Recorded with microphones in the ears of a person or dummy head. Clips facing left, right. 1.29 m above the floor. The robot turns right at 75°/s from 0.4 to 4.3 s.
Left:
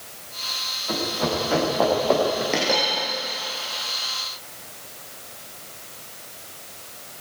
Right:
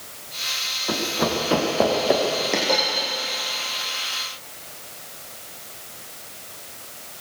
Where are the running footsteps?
55° right (ahead or behind), 6.5 m; by 2.4 s 15° left (ahead or behind), 6 m.